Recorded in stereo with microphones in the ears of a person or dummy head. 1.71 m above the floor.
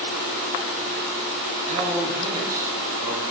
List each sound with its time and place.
1.7 s a man speaking: 45° right (ahead or behind), 1.5 m; by 3.2 s centre (ahead or behind), 1.5 m